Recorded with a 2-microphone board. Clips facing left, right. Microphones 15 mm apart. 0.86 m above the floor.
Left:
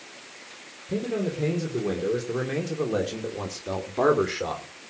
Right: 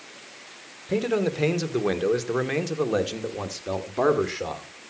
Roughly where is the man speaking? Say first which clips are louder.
Right 4 dB; right.